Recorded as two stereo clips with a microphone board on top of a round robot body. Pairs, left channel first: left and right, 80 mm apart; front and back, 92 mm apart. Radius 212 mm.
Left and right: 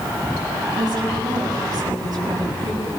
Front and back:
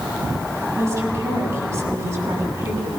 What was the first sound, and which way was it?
A woman speaking, 120° right.